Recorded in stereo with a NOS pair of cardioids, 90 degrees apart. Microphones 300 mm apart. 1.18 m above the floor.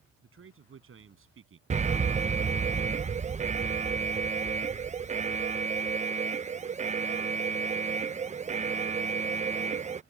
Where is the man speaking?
45° right.